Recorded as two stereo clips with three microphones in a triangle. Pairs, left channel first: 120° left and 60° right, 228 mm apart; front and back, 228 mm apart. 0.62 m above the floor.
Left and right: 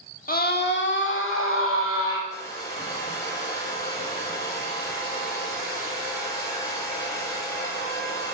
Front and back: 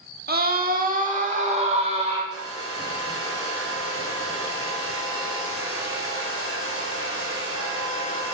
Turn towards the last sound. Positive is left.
turn(degrees=-165)